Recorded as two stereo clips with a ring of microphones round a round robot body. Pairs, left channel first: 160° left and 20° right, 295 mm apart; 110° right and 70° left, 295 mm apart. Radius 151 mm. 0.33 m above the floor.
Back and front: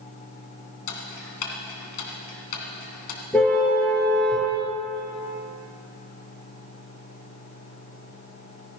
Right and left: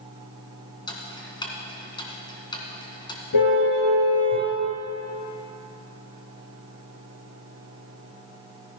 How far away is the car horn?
About 3.5 m.